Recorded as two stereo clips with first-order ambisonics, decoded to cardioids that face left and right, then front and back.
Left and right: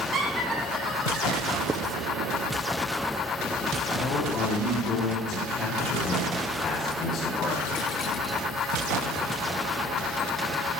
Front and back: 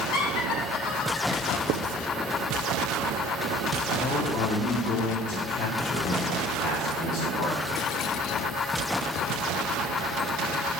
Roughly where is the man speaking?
Ahead left.